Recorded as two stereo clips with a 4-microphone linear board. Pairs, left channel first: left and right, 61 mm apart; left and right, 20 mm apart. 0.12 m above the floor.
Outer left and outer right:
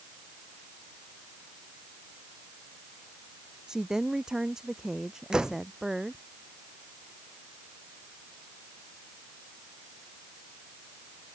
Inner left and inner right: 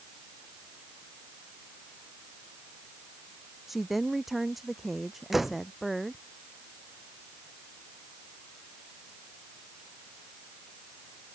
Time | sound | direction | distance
3.7 | a woman speaking | 10° right (ahead or behind) | ?
5.3 | a door slam | 10° right (ahead or behind) | ?